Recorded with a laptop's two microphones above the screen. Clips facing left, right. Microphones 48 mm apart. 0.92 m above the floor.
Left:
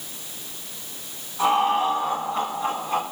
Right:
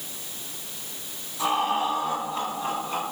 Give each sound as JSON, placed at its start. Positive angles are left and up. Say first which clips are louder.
{"t": 1.4, "sound": "laughter", "louder": "left 4 dB", "side_deg": 40, "distance_m": 8.0}